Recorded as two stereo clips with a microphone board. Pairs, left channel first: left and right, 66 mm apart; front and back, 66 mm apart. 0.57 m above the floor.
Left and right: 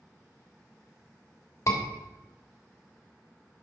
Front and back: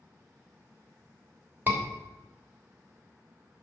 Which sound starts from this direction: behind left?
A scream, at 1.7 s.